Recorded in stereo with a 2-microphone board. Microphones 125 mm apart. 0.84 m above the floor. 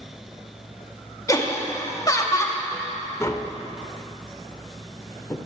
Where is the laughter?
25° left (ahead or behind), 1.3 m.